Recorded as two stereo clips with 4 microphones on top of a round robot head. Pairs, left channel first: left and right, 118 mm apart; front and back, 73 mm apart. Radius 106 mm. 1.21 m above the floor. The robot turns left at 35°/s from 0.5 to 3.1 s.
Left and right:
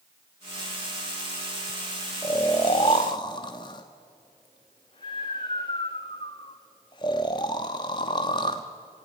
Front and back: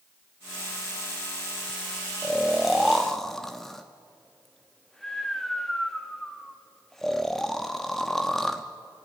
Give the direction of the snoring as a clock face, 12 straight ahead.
8 o'clock.